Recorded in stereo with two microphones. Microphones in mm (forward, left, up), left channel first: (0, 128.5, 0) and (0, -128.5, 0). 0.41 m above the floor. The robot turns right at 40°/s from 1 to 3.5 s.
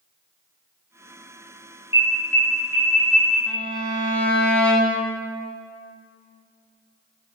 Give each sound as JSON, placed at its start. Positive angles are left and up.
{"t": 1.9, "sound": "an alarm", "side_deg": 20, "distance_m": 4.0}
{"t": 3.5, "sound": "a violin", "side_deg": 5, "distance_m": 2.0}